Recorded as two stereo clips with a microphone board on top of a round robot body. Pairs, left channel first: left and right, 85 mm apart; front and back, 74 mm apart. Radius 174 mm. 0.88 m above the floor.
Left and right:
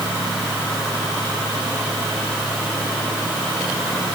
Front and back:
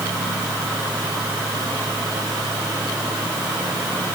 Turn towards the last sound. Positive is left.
No sound to turn to.